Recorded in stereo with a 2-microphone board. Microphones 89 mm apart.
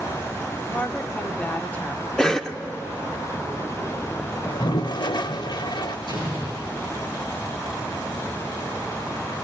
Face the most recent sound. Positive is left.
turn(degrees=60)  # may be behind; listen again after turning